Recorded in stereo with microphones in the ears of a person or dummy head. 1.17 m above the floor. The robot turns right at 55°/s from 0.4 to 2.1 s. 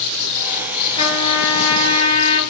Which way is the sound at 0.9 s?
30° left.